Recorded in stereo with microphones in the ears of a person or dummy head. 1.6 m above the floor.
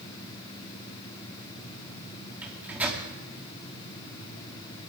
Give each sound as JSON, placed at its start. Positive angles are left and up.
{"t": 2.4, "sound": "a microwave", "side_deg": -5, "distance_m": 2.5}